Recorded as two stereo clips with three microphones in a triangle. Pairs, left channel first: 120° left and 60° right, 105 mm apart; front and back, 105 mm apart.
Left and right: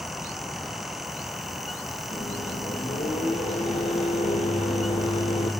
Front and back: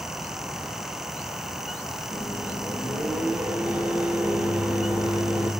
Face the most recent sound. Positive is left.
turn(degrees=105)